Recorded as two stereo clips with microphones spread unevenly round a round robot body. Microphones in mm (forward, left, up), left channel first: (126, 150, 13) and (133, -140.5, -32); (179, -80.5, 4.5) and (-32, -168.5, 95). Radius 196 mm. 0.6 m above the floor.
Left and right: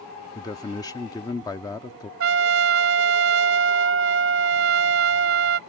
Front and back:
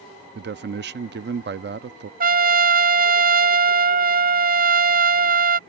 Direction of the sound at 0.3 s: 175° left.